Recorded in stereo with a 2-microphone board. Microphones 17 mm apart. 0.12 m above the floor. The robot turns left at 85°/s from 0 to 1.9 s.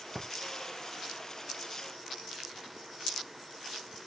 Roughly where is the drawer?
Centre.